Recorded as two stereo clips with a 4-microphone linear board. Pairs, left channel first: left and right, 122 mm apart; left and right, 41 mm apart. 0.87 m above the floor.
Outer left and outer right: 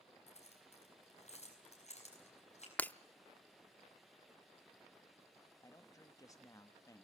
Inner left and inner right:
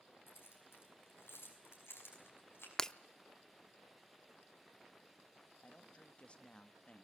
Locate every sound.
0.3 s keys jangling: 75° left (ahead or behind), 6 m
2.8 s breaking glass: 15° left (ahead or behind), 0.5 m
5.6 s a man speaking: 30° left (ahead or behind), 1.2 m